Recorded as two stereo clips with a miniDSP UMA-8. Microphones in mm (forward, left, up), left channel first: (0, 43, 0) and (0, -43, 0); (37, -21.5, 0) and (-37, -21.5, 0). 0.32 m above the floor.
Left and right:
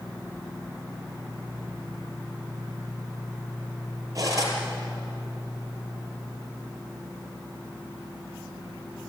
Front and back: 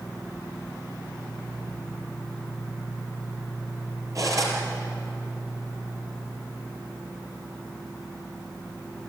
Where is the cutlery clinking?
140° right, 5.5 m.